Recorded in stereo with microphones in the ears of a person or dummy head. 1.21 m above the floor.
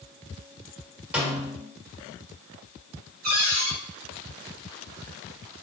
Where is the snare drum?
5° right (ahead or behind), 1.3 m.